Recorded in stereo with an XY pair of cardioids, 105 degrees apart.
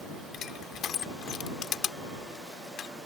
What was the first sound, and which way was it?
Crushing, 65° left.